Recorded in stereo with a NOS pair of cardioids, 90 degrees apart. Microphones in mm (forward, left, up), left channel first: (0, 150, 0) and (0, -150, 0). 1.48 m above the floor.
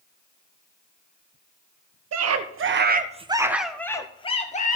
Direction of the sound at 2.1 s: 60° right.